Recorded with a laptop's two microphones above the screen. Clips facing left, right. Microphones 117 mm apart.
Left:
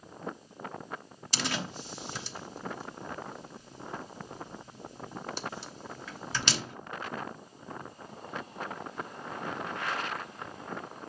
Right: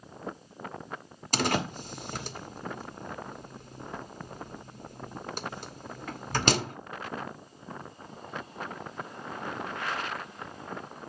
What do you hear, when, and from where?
1.3 s a door slam: 50° right (ahead or behind), 1.1 m